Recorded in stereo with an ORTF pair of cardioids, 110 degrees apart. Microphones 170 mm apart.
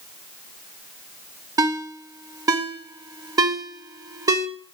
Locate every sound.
1.6 s a ringtone: 20° right, 0.8 m